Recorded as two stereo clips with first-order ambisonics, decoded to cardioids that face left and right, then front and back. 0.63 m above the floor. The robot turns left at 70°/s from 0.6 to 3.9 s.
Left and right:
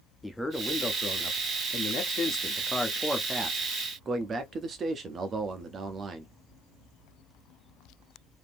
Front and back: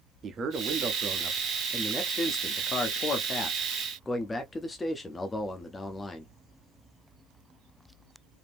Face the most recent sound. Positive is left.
turn(degrees=-60)